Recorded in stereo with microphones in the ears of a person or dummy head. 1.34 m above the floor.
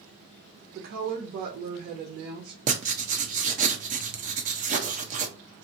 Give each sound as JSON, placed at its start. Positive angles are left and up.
{"t": 0.8, "sound": "a woman speaking", "side_deg": -50, "distance_m": 1.0}
{"t": 2.7, "sound": "writing", "side_deg": -40, "distance_m": 0.7}